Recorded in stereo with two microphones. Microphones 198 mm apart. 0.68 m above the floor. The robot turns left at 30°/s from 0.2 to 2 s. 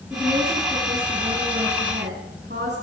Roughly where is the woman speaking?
Ahead.